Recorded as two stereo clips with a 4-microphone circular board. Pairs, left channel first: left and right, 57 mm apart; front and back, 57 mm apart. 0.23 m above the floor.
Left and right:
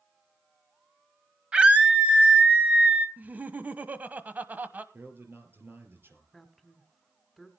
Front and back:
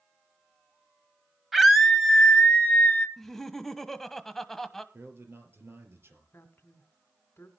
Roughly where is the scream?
Right.